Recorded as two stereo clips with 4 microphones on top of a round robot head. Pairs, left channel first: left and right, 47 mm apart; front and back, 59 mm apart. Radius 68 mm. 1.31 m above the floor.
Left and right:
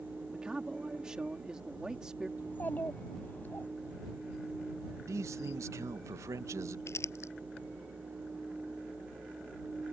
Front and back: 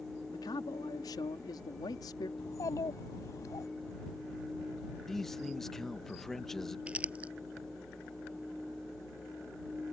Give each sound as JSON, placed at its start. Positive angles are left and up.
{"t": 0.3, "sound": "a man speaking", "azimuth_deg": -10}
{"t": 2.4, "sound": "a child speaking", "azimuth_deg": 30}
{"t": 5.1, "sound": "a man speaking", "azimuth_deg": -85}
{"t": 6.9, "sound": "crumpling", "azimuth_deg": 110}